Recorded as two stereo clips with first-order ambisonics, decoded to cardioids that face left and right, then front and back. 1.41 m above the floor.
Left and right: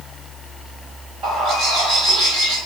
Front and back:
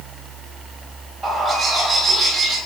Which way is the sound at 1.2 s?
105° right.